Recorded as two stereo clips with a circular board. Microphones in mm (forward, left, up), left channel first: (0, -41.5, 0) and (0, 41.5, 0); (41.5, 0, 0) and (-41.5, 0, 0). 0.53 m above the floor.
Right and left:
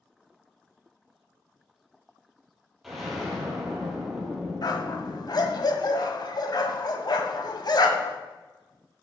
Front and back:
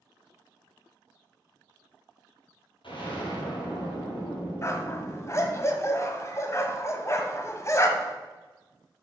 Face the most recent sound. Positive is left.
turn(degrees=-55)